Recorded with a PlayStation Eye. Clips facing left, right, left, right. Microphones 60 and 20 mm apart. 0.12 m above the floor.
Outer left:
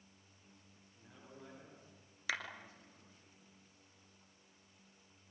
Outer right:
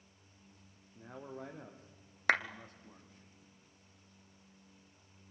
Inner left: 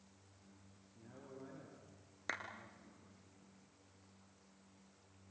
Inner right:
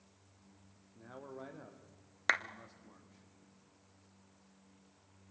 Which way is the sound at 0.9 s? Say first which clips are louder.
Outer right 11 dB, inner right 6 dB; 55° right (ahead or behind).